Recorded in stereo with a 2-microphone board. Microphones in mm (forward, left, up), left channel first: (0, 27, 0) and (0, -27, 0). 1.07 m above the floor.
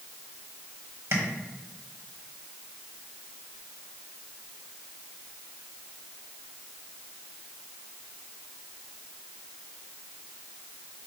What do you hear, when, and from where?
1.1 s tapping: 50° right (ahead or behind), 1.4 m